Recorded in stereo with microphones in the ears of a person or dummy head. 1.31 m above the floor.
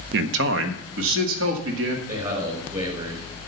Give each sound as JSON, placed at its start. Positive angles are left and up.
{"t": 0.1, "sound": "a man speaking", "side_deg": -70, "distance_m": 0.6}
{"t": 2.1, "sound": "a man speaking", "side_deg": -30, "distance_m": 4.0}